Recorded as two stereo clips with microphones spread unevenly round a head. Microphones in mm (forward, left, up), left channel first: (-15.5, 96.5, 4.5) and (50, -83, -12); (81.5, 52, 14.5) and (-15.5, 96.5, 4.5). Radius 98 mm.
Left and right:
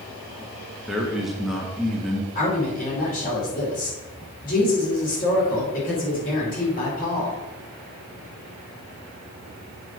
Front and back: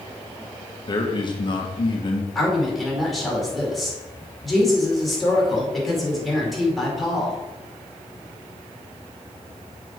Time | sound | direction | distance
0.9 | a man speaking | 20° left | 1.4 m
2.4 | a woman speaking | 65° left | 4.5 m